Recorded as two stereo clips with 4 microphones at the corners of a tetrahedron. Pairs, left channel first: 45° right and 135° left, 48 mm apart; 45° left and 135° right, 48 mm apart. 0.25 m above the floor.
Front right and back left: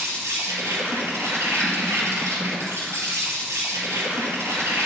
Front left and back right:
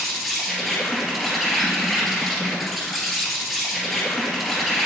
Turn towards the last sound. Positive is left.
turn(degrees=135)